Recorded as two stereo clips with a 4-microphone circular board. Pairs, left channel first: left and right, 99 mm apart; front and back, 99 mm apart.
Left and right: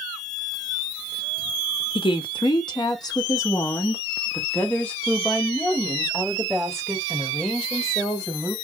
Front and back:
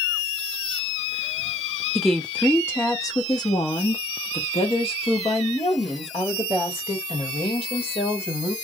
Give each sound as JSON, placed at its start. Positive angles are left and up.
{"t": 1.9, "sound": "a woman speaking", "azimuth_deg": 90, "distance_m": 0.9}